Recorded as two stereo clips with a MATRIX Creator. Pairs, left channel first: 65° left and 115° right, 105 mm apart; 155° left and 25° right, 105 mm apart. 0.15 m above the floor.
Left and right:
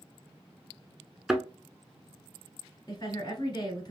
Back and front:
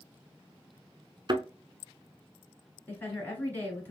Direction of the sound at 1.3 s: 30° right.